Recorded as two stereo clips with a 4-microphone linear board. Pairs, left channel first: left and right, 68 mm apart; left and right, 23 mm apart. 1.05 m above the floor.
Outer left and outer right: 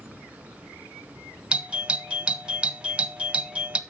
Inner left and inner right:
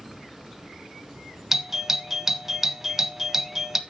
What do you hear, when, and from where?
1.5 s a doorbell: 15° right (ahead or behind), 0.9 m